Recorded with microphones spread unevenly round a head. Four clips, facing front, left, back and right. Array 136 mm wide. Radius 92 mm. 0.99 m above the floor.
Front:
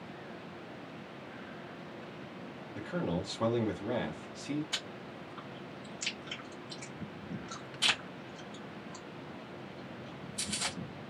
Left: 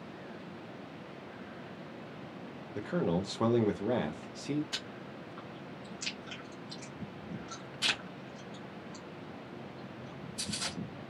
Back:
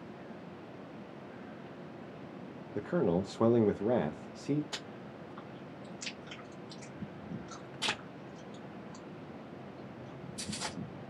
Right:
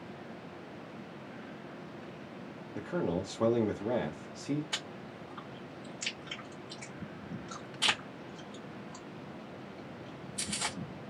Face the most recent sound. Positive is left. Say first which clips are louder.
# right 1 dB, front 1 dB
turn(degrees=-160)